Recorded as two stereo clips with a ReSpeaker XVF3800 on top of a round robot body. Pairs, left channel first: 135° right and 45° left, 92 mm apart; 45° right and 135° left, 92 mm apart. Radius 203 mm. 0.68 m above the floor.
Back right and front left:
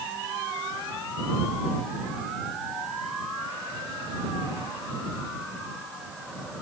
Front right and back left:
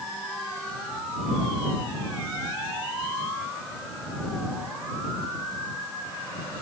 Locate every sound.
Only background noise.